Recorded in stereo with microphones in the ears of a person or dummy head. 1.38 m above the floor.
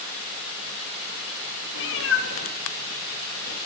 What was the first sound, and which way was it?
A cat meowing, 65° left (ahead or behind).